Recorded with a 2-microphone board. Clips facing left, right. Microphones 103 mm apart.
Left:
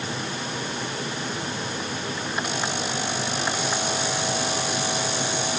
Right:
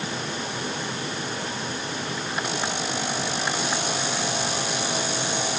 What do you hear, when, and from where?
Only background noise.